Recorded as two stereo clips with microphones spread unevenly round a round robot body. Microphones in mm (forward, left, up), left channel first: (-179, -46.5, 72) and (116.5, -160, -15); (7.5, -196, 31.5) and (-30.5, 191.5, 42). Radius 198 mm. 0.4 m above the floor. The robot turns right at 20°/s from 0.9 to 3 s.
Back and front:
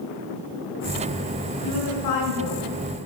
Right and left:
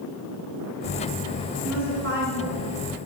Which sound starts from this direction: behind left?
A woman speaking, at 1.6 s.